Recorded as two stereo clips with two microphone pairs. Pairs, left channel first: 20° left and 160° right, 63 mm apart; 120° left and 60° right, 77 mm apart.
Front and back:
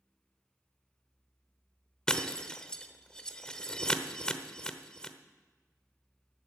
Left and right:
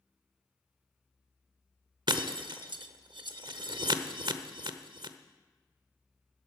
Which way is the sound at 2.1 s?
55° right.